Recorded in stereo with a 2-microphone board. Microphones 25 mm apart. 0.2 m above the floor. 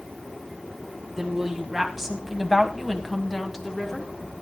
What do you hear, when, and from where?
1.2 s a woman speaking: 15° right (ahead or behind), 1.7 m; by 4.1 s 10° left (ahead or behind), 2.5 m